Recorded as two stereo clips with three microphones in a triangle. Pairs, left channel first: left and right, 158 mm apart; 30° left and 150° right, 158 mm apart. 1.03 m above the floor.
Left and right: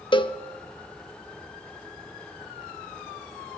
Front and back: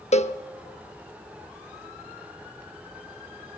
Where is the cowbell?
45° left, 0.8 m.